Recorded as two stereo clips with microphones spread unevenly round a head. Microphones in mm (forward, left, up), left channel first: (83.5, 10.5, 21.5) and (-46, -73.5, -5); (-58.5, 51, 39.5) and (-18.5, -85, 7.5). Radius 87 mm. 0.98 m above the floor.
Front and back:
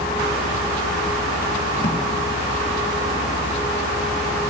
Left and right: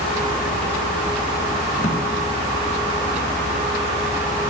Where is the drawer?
75° left, 1.6 m.